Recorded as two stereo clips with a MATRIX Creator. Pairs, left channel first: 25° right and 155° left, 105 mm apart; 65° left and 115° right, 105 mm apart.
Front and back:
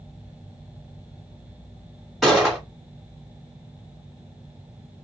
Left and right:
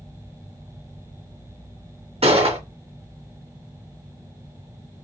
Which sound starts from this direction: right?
A gunshot, at 2.2 s.